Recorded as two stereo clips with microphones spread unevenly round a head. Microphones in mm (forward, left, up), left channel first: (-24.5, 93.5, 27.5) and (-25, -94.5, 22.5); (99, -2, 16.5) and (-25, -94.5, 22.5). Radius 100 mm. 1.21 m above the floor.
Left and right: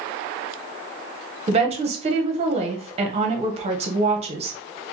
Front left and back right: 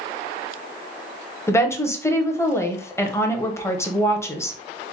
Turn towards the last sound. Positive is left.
turn(degrees=-35)